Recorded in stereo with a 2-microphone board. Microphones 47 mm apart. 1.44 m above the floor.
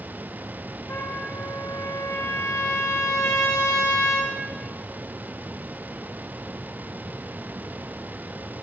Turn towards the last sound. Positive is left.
turn(degrees=80)